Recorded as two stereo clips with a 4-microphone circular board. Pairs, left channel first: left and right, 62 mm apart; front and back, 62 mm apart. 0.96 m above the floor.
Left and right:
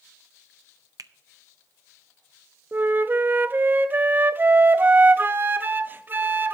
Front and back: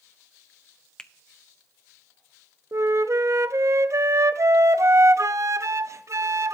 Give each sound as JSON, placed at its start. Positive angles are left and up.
{"t": 1.0, "sound": "a finger snap", "azimuth_deg": -75, "distance_m": 0.5}
{"t": 2.7, "sound": "a flute", "azimuth_deg": -145, "distance_m": 0.5}